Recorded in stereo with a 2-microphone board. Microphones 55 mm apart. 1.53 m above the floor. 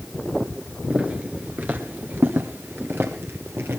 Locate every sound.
0.9 s footsteps: 25° right (ahead or behind), 1.6 m; by 3.8 s 45° right (ahead or behind), 2.5 m